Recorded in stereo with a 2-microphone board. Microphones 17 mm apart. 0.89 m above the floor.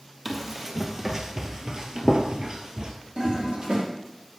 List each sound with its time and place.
0.2 s running footsteps: 15° right (ahead or behind), 1.5 m; by 2.9 s 45° right (ahead or behind), 1.3 m
3.2 s a toilet flushing: 65° right (ahead or behind), 2 m